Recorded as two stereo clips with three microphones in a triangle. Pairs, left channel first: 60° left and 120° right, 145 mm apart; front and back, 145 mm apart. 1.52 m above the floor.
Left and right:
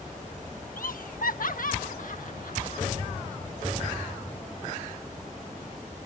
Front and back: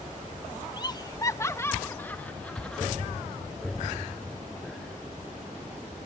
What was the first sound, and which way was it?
Laughter, 60° left.